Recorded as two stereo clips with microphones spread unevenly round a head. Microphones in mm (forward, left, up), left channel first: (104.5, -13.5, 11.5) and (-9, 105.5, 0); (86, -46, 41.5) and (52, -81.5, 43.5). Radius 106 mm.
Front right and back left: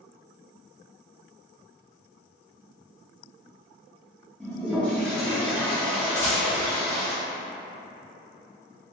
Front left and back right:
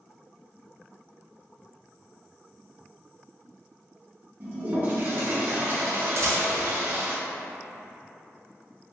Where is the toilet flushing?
125° right, 0.5 m.